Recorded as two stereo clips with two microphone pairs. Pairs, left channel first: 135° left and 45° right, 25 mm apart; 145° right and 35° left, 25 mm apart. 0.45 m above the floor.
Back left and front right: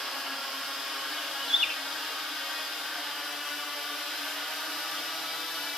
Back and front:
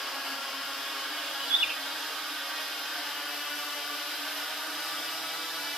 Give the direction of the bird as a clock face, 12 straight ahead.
10 o'clock.